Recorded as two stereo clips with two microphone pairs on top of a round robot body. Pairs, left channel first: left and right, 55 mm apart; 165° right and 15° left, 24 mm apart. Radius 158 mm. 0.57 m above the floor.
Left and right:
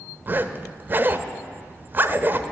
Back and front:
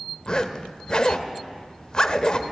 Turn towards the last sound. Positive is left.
turn(degrees=-135)